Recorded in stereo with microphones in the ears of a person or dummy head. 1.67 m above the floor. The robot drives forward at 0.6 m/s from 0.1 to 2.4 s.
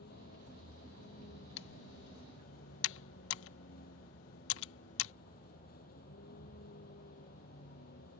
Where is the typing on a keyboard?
70° left (ahead or behind); by 5.1 s 80° left.